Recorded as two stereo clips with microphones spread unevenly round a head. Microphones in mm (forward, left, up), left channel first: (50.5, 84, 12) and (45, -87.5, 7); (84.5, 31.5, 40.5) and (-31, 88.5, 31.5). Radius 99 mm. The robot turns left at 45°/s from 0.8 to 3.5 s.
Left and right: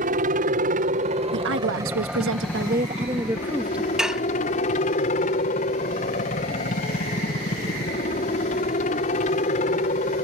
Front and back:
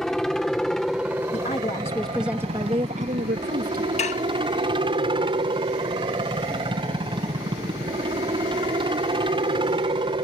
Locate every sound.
0.0 s a helicopter: 115° right; by 10.2 s 125° left
1.3 s a woman speaking: 80° right; by 3.9 s 175° right
4.0 s dishes clattering: 5° right